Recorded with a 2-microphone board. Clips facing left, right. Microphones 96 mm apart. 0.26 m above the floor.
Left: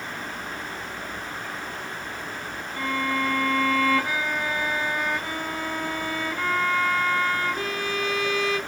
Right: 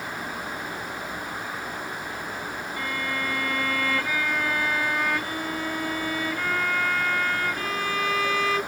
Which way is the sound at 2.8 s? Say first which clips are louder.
Left 6 dB; 20° left (ahead or behind).